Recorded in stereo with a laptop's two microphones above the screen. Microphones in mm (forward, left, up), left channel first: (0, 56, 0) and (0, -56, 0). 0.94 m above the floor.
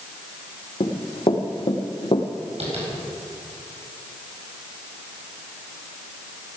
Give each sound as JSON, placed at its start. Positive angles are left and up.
{"t": 0.8, "sound": "running footsteps", "side_deg": 60, "distance_m": 2.0}
{"t": 2.6, "sound": "tapping", "side_deg": -75, "distance_m": 4.5}